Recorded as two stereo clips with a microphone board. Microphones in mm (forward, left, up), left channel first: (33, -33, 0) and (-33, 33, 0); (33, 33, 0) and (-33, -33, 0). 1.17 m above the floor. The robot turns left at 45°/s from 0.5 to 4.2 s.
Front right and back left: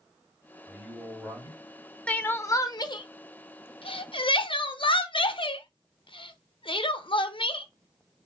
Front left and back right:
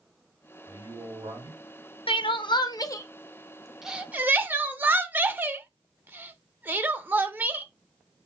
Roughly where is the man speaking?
Behind right.